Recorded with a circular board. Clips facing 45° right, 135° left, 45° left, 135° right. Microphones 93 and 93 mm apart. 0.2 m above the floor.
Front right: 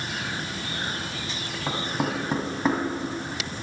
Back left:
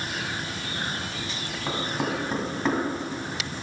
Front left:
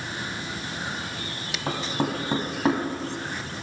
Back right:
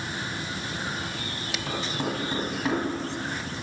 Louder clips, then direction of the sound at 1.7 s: Front right 1 dB, front left 4 dB; 30° left.